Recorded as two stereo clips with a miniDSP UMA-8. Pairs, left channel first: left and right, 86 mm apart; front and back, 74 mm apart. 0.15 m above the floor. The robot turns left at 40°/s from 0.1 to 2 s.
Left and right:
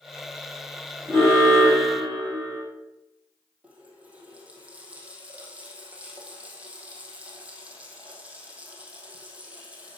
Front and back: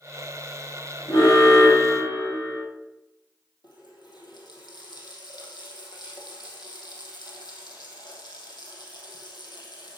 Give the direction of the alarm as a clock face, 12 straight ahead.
11 o'clock.